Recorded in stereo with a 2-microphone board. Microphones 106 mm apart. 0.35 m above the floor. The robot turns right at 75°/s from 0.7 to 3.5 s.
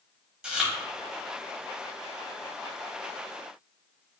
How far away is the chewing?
About 0.8 m.